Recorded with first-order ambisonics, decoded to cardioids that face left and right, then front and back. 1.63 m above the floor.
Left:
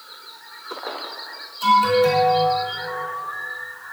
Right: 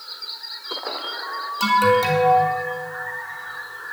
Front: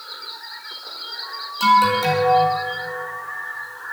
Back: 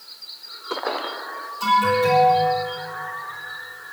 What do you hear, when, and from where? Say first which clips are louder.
1.6 s an alarm: left 1 dB, front 3 dB; 60° right, 3 m